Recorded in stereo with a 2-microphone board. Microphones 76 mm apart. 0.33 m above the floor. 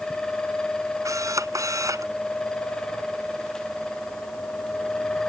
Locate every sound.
1.1 s a camera shutter: 45° right (ahead or behind)